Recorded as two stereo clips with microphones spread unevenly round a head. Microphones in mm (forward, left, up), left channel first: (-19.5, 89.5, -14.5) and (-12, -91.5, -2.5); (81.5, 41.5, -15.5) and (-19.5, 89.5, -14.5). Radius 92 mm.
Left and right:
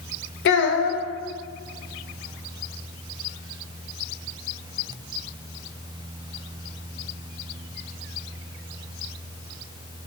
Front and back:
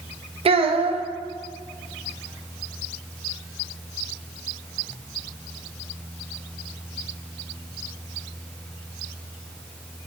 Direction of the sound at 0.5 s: 120° left.